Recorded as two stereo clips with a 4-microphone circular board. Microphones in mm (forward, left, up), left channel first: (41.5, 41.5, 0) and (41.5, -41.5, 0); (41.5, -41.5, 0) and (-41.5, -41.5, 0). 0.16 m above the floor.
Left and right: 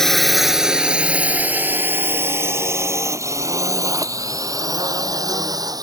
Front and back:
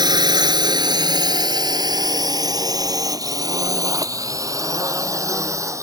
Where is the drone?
175° left; by 5.8 s 130° right.